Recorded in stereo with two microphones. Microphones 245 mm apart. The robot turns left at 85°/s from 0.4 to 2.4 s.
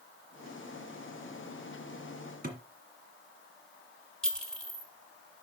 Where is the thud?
40° right (ahead or behind), 1.8 m.